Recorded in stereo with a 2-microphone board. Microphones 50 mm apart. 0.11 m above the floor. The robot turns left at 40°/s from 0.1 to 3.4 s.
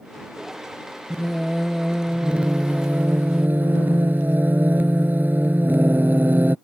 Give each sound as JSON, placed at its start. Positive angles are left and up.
{"t": 1.1, "sound": "singing", "azimuth_deg": 15}